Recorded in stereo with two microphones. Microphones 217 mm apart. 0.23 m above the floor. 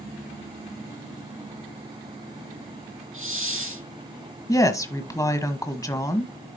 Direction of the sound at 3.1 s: 75° right (ahead or behind).